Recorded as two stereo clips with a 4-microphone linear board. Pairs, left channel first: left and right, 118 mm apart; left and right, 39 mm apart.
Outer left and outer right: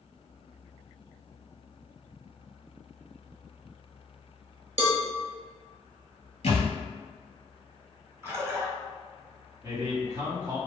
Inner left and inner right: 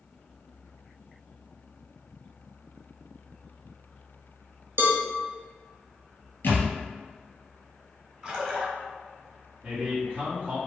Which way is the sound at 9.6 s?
35° right (ahead or behind).